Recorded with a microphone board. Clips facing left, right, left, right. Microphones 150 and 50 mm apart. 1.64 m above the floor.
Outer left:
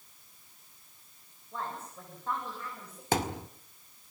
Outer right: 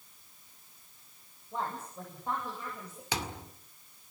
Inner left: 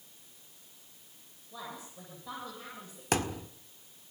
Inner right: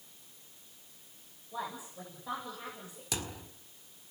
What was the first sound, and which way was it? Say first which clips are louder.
A woman speaking: outer right 2 dB, inner right 4 dB; 15° right (ahead or behind).